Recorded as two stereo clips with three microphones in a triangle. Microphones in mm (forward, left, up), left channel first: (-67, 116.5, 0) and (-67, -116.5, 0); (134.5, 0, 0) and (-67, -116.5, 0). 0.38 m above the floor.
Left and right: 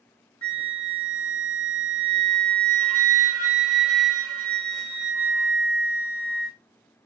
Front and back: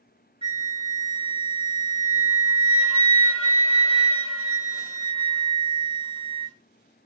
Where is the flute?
95° left, 0.9 m.